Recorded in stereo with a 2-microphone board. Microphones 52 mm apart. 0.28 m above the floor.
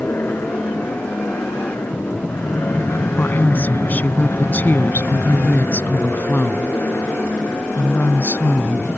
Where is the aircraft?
55° left (ahead or behind); by 9.0 s 60° left (ahead or behind).